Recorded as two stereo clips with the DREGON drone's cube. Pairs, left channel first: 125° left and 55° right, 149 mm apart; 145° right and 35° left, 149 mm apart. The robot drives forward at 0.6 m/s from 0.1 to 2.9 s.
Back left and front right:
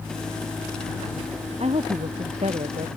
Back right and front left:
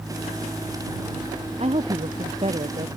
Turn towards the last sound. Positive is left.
turn(degrees=-10)